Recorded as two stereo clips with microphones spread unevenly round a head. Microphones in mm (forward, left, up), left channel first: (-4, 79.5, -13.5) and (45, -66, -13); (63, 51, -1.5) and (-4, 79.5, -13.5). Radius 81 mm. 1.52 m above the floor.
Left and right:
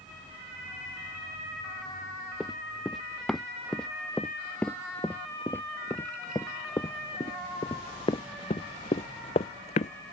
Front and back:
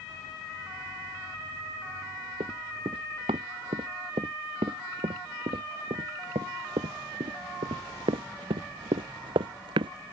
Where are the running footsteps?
160° right; by 9.9 s 155° left.